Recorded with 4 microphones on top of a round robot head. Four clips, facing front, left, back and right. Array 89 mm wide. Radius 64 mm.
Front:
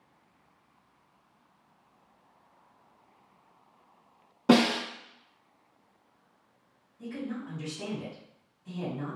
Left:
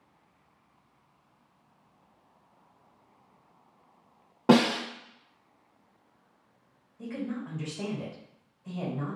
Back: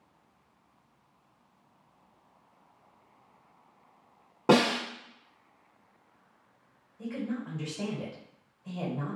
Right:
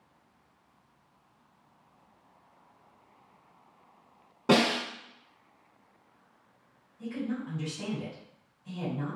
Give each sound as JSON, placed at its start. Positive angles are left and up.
{"t": 4.5, "sound": "a snare drum", "azimuth_deg": 125, "distance_m": 1.6}
{"t": 7.0, "sound": "a woman speaking", "azimuth_deg": 135, "distance_m": 1.4}